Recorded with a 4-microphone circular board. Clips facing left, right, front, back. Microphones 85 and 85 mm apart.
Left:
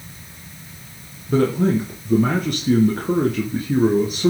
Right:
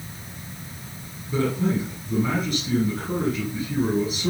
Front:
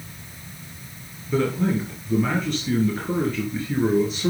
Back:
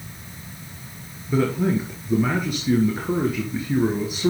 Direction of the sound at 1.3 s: 100° left.